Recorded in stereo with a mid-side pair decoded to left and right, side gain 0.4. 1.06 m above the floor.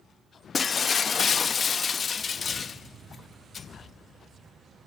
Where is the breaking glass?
45° left, 0.8 m.